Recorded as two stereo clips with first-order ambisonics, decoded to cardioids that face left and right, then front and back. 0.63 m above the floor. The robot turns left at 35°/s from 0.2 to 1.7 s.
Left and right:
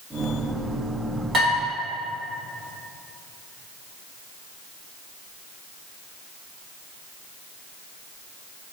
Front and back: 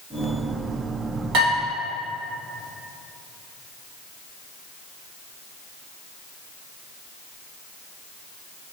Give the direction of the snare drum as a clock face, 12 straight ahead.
No snare drum in this recording.